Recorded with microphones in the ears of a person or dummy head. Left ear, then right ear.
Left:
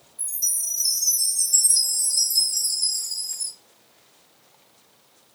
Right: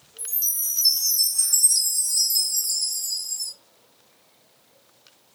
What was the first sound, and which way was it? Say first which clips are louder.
A chime: left 2 dB; 30° right (ahead or behind).